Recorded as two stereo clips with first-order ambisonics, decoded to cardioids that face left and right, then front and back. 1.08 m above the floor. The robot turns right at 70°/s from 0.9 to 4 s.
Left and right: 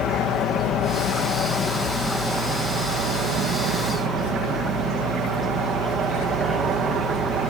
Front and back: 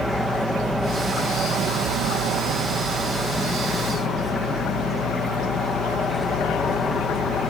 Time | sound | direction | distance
0.0 | an aircraft | 90° left | ?